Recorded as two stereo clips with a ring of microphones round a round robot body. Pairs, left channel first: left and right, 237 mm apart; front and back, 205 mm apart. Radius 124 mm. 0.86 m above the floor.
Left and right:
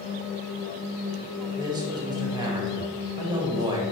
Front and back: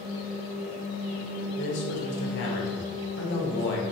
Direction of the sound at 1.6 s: 20° right.